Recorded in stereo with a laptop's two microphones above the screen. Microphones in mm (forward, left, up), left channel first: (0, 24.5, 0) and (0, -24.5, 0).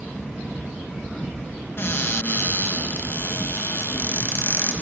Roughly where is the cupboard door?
Left.